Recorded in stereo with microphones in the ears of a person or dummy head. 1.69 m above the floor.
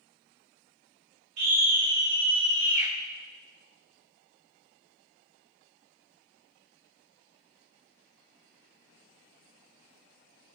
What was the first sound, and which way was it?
A scream, 65° right (ahead or behind).